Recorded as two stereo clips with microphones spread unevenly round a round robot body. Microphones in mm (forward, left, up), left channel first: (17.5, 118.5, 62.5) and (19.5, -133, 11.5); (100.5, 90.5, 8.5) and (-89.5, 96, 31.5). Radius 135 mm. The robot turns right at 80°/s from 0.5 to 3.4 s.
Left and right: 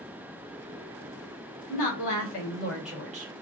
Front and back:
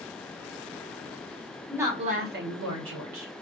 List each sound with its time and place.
1.7 s a woman speaking: 90° left, 1.3 m; by 3.3 s 140° right, 1.3 m